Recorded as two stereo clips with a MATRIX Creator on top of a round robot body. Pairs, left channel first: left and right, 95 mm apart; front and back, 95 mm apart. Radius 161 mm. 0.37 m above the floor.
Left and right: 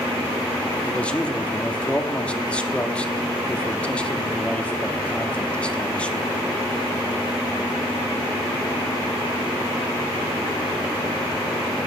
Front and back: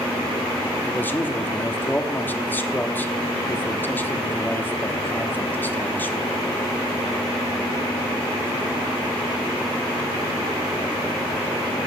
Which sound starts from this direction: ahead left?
A man speaking, at 0.8 s.